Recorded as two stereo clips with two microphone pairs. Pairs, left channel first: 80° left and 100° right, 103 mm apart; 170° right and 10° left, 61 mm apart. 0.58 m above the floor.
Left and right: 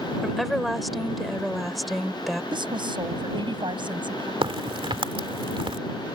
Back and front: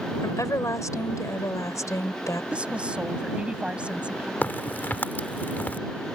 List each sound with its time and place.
0.2 s a woman speaking: 170° left
2.5 s a woman speaking: 65° right
4.4 s a crack: 115° right